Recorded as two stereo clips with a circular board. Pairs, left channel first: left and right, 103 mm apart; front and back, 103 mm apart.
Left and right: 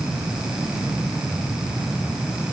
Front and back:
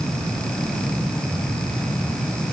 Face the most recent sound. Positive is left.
No sound to turn to.